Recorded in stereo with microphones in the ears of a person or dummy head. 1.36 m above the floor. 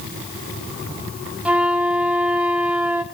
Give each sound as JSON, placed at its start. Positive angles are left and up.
{"t": 1.4, "sound": "a flute", "side_deg": -5, "distance_m": 0.6}